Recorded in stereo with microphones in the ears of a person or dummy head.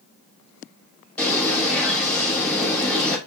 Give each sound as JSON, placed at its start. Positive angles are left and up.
{"t": 1.2, "sound": "a bird", "side_deg": 10, "distance_m": 2.5}